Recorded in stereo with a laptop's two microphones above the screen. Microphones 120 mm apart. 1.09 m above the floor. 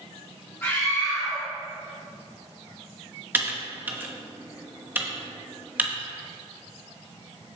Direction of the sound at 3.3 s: 15° right (ahead or behind).